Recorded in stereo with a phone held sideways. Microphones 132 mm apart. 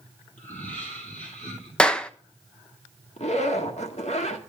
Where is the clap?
5° left (ahead or behind), 0.7 m.